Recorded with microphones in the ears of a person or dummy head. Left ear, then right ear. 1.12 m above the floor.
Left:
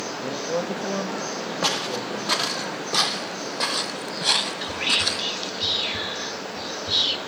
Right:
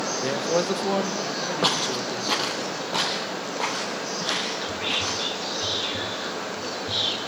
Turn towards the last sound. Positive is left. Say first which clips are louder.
# left 3 dB
turn(degrees=25)  # may be behind; listen again after turning